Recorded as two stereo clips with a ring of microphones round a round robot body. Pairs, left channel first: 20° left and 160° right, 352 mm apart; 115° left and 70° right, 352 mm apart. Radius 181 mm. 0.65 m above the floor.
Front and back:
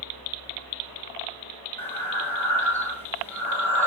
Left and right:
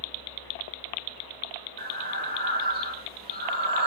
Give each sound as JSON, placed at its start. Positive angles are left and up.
{"t": 1.8, "sound": "breathing", "azimuth_deg": -55, "distance_m": 1.0}